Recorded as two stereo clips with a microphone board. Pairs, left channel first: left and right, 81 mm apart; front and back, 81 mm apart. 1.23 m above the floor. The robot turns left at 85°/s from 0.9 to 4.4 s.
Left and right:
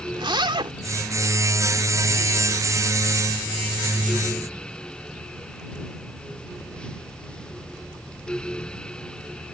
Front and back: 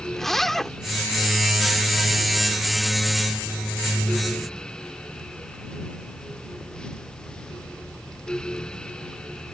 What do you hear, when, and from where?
0.1 s a zipper: 85° right